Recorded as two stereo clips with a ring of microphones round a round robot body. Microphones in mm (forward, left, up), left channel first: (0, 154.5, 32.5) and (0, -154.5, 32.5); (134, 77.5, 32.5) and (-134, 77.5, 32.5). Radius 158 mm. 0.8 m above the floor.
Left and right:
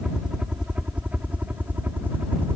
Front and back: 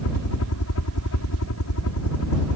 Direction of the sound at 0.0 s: Straight ahead.